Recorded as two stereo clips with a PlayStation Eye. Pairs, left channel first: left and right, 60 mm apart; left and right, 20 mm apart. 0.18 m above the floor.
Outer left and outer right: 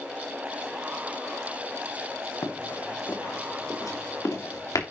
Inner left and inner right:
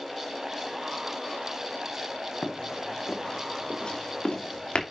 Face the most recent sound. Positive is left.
turn(degrees=90)